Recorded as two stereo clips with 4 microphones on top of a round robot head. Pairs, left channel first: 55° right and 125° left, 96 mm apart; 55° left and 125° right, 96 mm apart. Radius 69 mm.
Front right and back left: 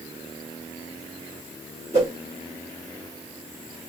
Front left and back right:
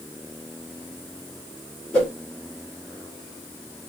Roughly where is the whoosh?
Behind left.